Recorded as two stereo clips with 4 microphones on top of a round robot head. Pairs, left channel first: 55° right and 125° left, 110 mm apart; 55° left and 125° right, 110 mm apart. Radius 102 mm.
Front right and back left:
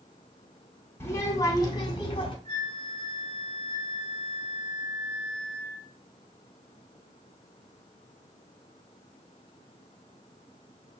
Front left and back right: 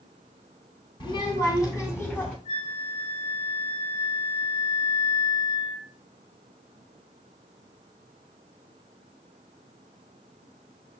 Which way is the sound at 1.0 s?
10° left.